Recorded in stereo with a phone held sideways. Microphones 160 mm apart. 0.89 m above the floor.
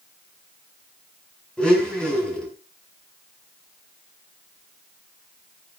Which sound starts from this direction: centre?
A blender, at 1.6 s.